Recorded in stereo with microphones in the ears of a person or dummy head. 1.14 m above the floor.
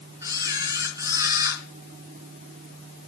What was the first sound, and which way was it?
A camera shutter, 15° right (ahead or behind).